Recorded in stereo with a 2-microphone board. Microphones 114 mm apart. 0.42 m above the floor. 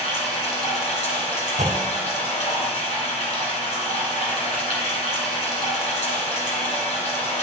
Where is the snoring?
No snoring in this recording.